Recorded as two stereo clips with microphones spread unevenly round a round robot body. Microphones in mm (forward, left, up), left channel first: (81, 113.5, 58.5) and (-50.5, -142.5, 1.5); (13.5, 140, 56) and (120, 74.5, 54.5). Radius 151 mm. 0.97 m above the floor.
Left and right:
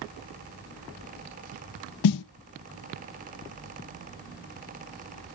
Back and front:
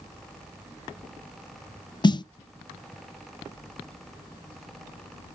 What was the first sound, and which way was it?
A snare drum, 90° left.